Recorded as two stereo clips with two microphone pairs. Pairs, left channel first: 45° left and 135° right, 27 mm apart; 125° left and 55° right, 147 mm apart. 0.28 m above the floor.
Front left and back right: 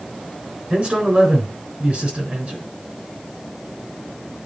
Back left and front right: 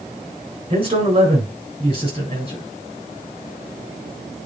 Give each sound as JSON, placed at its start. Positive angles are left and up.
{"t": 0.7, "sound": "a man speaking", "azimuth_deg": -100, "distance_m": 3.5}